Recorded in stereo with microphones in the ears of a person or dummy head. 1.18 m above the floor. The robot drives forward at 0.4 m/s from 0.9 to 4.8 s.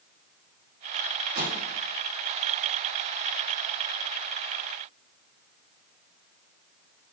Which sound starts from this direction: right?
A microwave, at 1.4 s.